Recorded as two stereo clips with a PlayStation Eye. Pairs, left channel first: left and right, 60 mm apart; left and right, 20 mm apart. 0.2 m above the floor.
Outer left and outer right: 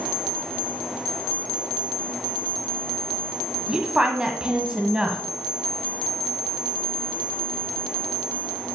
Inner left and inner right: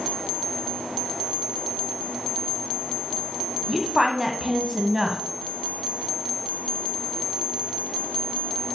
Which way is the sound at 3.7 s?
15° right (ahead or behind).